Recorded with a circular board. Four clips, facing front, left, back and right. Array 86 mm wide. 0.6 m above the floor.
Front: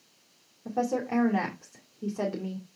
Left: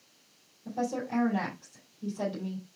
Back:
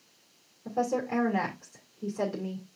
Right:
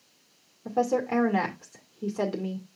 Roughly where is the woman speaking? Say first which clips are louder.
Right 7 dB, even; right.